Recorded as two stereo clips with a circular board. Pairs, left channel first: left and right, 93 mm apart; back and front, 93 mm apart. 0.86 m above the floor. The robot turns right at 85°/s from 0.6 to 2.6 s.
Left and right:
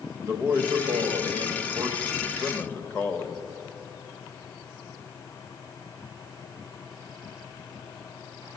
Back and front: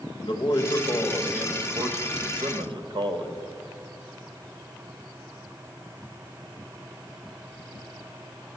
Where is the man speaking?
145° right, 0.9 m; by 3.4 s 25° left, 0.9 m.